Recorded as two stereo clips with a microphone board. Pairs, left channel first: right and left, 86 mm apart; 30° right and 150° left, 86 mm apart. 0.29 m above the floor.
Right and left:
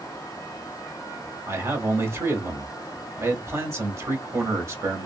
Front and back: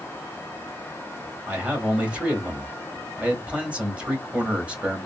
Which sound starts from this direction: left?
A man speaking, at 1.5 s.